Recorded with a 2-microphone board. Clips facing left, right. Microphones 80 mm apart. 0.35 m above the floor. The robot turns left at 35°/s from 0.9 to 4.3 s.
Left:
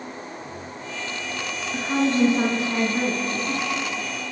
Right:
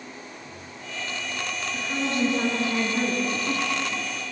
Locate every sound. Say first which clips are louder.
1.7 s a woman speaking: left 7 dB; 50° left, 3.5 m; by 4.1 s 35° right, 3.5 m